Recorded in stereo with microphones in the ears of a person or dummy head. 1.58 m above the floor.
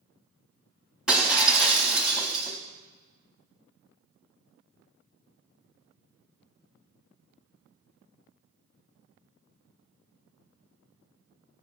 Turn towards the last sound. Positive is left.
turn(degrees=0)  # may be behind; listen again after turning